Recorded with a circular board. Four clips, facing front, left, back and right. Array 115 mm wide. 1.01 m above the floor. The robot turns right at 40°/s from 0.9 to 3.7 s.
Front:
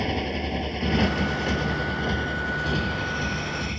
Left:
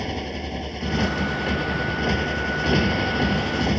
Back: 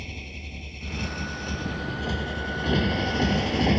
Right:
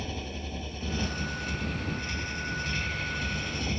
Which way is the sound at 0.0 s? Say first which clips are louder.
Left 8 dB, front 15 dB; 30° left.